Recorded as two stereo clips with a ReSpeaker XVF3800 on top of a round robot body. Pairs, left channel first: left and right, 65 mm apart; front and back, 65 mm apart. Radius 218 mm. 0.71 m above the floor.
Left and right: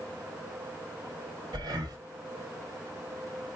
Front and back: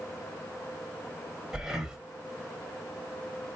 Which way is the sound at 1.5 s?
100° right.